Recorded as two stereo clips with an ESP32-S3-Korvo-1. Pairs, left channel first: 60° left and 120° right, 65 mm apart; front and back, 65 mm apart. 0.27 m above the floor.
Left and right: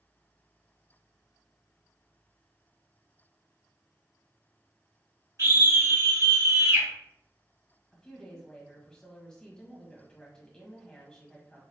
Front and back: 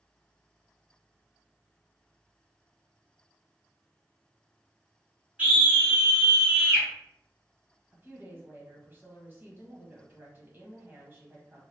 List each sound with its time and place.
5.4 s a scream: 120° right, 1.3 m
7.9 s a woman speaking: 135° left, 1.3 m